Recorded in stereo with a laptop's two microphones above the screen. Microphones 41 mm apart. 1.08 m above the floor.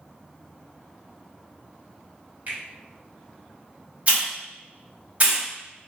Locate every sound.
2.5 s a finger snap: 55° right (ahead or behind), 1.7 m
4.1 s a hiss: 40° right (ahead or behind), 1.0 m